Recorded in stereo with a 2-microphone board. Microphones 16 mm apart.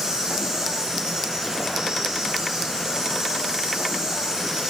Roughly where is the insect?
Right.